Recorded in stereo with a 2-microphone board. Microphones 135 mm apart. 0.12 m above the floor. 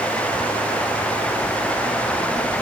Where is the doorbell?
No doorbell in this recording.